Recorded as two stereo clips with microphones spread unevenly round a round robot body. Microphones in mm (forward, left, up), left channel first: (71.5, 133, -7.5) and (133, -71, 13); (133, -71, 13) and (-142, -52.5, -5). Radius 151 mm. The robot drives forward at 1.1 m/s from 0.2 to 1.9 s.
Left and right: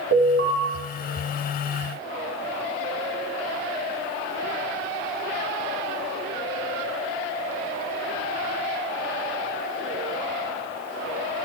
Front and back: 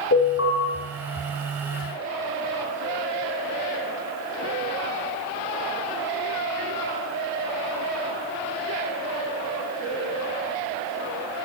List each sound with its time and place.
0.1 s an alarm: 45° right, 6.5 m